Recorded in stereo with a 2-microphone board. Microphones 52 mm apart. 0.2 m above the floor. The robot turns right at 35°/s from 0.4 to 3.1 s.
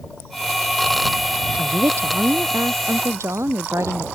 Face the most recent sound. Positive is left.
turn(degrees=-70)